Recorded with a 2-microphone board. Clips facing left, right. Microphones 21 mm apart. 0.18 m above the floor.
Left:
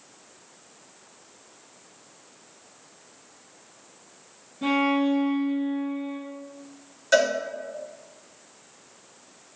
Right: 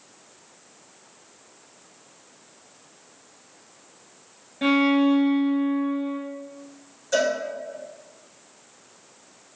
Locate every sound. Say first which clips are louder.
4.6 s a violin: right 4 dB; 65° right (ahead or behind), 0.9 m
7.1 s a cowbell: left 2 dB; 50° left (ahead or behind), 1.1 m